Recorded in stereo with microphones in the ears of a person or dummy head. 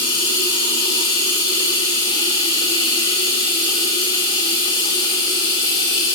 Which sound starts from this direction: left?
Running water, at 0.0 s.